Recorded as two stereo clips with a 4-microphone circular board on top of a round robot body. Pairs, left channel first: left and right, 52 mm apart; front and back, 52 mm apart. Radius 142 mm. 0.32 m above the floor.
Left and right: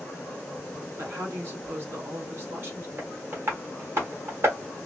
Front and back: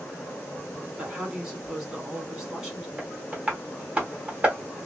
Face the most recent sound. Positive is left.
turn(degrees=-120)